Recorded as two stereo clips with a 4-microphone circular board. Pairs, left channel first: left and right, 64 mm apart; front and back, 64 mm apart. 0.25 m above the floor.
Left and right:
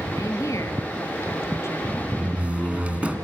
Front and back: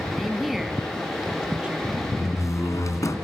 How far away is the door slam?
About 2 m.